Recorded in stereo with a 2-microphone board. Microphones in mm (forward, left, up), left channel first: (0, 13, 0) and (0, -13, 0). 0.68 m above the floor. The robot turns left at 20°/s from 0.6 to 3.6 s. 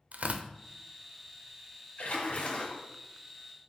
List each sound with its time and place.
0.1 s tearing paper: 75° right (ahead or behind), 0.7 m
2.0 s a splash: 85° left, 2.5 m; by 2.8 s 65° left (ahead or behind), 2.5 m